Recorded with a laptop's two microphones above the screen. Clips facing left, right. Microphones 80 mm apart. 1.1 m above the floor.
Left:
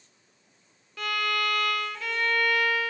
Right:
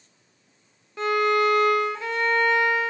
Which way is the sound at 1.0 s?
25° right (ahead or behind).